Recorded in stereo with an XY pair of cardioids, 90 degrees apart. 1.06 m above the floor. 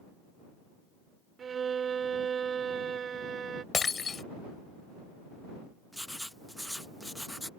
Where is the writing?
Straight ahead.